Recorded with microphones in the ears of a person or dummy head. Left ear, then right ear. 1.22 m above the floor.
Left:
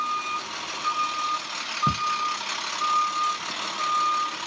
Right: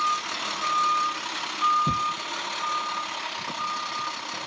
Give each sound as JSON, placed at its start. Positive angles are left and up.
{"t": 1.9, "sound": "ticking", "side_deg": 65, "distance_m": 0.6}